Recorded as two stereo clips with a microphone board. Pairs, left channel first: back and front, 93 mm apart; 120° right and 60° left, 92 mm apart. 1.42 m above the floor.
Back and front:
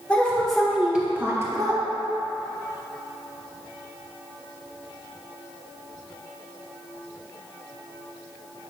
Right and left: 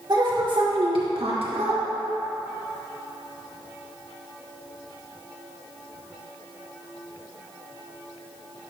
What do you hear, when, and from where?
0.1 s a woman speaking: 105° left, 2 m; by 1.8 s 45° left, 1.5 m